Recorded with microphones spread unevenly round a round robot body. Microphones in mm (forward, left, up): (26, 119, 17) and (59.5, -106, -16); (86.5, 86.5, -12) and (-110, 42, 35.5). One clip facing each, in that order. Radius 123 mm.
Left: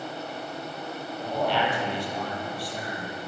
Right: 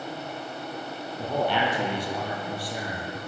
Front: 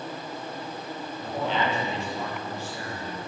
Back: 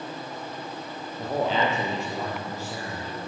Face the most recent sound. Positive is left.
turn(degrees=-105)